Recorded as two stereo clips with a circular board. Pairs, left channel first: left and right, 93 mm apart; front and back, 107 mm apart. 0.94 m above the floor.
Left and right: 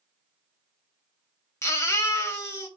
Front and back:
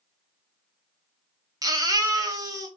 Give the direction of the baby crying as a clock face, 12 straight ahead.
7 o'clock.